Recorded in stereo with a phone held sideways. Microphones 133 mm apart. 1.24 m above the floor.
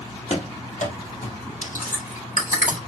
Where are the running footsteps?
55° left (ahead or behind), 2.0 m; by 1.4 s 65° left (ahead or behind), 3 m.